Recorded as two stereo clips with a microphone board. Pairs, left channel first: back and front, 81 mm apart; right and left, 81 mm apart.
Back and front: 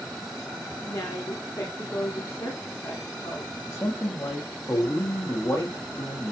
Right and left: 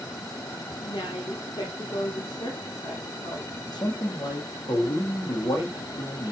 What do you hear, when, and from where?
0.8 s a woman speaking: 130° right, 6.5 m
3.7 s a man speaking: 125° right, 6.5 m